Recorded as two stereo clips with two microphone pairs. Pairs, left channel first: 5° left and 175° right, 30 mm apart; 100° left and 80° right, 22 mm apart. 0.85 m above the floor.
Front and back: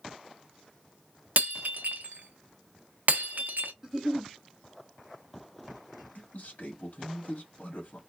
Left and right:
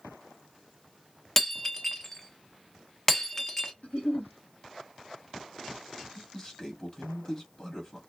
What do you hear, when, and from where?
1.4 s breaking glass: 170° left, 0.7 m
3.8 s a giggle: 115° left, 1.0 m
6.2 s a man speaking: 45° left, 1.5 m